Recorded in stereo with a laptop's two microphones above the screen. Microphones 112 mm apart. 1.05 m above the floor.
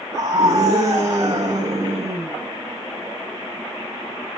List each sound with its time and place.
0.1 s a scream: 80° right, 5.5 m